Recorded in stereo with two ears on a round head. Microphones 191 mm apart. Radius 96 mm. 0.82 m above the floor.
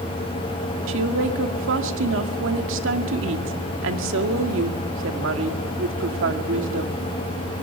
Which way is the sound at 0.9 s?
65° right (ahead or behind).